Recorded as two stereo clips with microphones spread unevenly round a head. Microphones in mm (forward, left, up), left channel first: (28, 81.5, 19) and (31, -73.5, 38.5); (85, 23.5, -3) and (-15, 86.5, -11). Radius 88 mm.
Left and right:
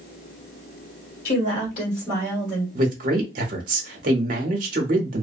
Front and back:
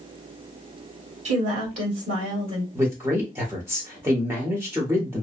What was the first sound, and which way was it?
A woman speaking, 140° left.